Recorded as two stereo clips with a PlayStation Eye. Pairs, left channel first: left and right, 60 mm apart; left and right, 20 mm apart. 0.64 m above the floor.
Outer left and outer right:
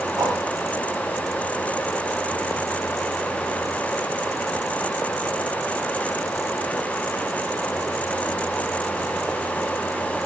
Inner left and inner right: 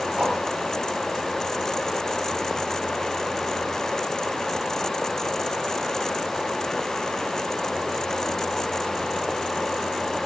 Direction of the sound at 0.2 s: 80° right.